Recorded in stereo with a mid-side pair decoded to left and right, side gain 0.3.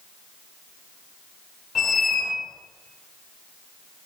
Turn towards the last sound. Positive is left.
turn(degrees=60)